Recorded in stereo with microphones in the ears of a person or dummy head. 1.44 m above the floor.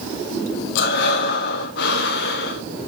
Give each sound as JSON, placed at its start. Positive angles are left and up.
{"t": 0.8, "sound": "breathing", "side_deg": 55, "distance_m": 0.8}